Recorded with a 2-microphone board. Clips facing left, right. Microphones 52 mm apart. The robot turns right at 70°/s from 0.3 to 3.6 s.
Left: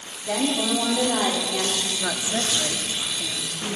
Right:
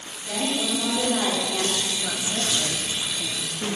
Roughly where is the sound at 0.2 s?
Left.